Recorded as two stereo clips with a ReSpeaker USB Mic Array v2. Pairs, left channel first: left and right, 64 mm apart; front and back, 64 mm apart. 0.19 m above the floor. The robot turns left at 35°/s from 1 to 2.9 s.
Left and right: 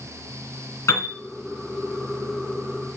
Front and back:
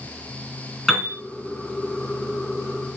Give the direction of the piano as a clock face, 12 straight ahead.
9 o'clock.